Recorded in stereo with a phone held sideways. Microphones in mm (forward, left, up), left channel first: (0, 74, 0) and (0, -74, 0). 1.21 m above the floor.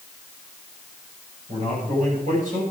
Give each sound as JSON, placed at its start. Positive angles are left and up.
{"t": 1.5, "sound": "a man speaking", "side_deg": -60, "distance_m": 6.5}